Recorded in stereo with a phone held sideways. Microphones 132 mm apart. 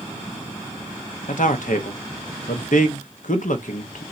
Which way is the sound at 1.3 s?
75° left (ahead or behind).